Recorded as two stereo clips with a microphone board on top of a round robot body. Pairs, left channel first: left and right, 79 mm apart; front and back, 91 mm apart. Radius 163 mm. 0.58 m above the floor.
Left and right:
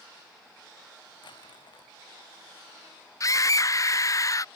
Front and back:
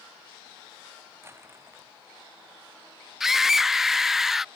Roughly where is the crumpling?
Behind left.